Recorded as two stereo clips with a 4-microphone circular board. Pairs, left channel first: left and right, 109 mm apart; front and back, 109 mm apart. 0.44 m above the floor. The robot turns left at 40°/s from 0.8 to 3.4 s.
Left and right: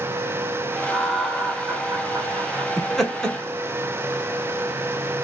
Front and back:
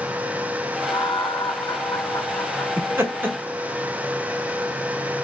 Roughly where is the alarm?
I don't hear an alarm.